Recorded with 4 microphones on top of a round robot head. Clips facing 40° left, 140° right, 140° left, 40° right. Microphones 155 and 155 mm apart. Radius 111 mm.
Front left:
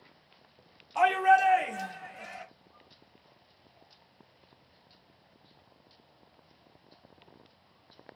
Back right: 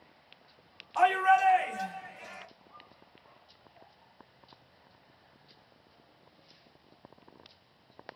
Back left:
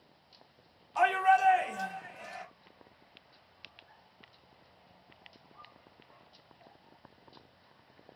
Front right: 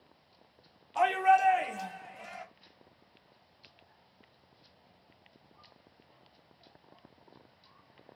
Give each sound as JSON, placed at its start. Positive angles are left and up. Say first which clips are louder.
{"t": 0.9, "sound": "a shout", "louder": "front left 1 dB, front right 1 dB", "azimuth_deg": -20, "distance_m": 1.0}